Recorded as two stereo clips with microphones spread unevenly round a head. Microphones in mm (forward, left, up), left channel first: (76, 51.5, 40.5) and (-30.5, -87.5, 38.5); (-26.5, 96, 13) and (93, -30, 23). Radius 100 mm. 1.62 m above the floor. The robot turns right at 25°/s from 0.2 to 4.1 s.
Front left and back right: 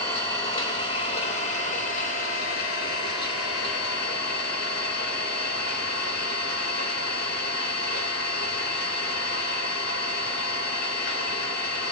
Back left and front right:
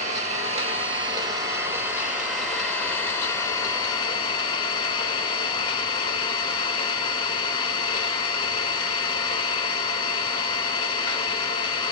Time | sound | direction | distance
0.0 | an engine running | 15° right | 1.5 m